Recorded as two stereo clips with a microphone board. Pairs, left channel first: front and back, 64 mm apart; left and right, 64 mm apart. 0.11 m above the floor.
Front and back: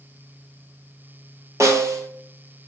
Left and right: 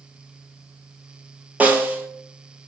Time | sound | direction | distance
1.6 | a snare drum | 150° right | 0.6 m